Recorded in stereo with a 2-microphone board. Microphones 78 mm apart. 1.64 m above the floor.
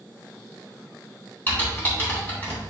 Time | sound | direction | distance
1.5 | typing on a keyboard | 25° left (ahead or behind) | 3.5 m